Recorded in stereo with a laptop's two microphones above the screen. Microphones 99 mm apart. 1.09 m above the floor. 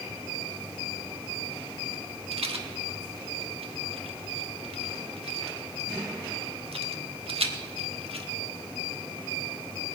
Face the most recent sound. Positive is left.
turn(degrees=-80)